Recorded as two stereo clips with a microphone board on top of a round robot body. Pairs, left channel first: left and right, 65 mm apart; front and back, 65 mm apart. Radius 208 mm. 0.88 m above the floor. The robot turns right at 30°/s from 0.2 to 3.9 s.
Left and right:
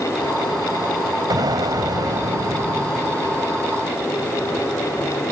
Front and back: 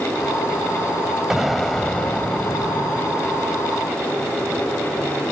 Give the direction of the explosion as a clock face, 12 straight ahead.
3 o'clock.